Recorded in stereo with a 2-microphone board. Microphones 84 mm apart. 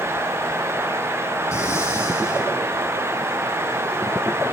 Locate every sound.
1.5 s breathing: 35° left (ahead or behind), 6 m